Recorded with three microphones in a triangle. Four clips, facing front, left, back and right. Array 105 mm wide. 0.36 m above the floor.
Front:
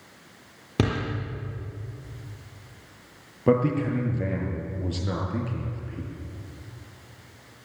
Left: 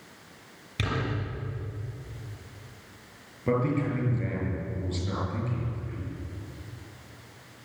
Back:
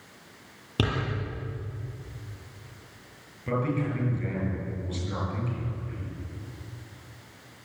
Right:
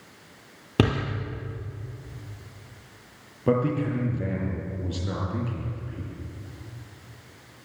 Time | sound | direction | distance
0.8 | a door slam | 75° right | 6.5 m
3.5 | a man speaking | 20° right | 7 m